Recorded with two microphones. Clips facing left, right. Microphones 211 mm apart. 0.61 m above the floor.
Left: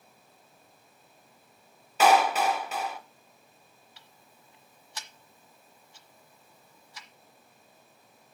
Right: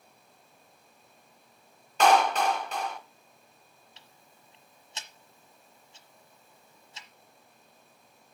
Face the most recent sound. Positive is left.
turn(degrees=-25)  # may be behind; listen again after turning